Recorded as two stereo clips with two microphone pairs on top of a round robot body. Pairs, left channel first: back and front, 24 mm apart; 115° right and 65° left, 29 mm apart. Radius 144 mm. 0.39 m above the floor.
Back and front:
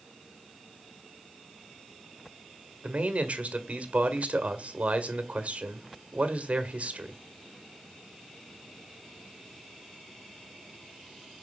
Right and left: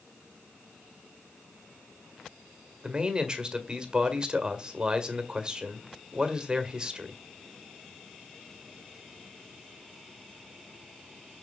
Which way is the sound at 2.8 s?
5° left.